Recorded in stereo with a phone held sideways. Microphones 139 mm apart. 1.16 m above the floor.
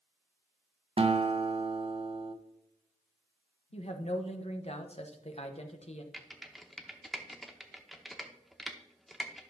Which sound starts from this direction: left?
A woman speaking, at 3.7 s.